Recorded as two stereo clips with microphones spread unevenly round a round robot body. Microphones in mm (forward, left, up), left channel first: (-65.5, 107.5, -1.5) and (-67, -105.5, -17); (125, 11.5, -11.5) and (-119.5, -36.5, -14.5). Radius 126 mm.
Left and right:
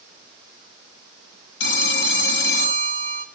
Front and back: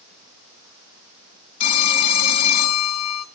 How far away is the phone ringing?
About 1.0 m.